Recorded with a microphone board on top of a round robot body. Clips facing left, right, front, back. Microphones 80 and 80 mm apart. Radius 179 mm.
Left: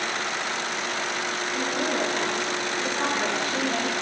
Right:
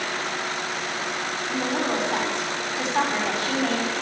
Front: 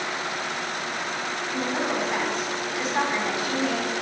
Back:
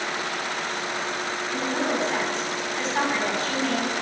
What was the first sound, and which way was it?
A woman speaking, 80° right.